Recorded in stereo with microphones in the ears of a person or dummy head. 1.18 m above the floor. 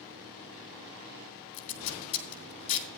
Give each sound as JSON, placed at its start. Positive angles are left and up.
{"t": 1.5, "sound": "tape being pulled", "side_deg": 35, "distance_m": 2.5}